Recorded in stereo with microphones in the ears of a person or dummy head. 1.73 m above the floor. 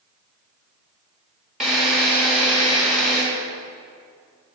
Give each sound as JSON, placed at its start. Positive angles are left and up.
{"t": 1.6, "sound": "a drill", "side_deg": 0, "distance_m": 1.8}